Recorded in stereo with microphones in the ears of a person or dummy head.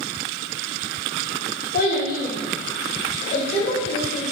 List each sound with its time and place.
1.7 s a child speaking: 60° left (ahead or behind), 2.5 m; by 4.2 s 40° left (ahead or behind), 4 m